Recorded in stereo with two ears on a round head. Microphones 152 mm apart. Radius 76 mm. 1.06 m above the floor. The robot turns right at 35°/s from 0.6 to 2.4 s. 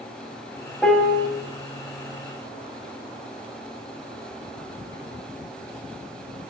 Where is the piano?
Centre (ahead or behind), 0.7 m; by 1.3 s 15° left (ahead or behind), 0.7 m.